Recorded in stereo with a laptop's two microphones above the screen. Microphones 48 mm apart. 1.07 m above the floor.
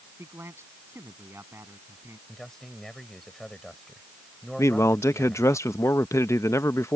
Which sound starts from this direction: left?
A man speaking, at 4.6 s.